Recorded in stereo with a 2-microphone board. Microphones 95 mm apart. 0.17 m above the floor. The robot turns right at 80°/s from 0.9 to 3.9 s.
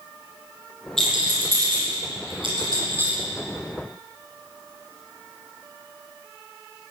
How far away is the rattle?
About 7 m.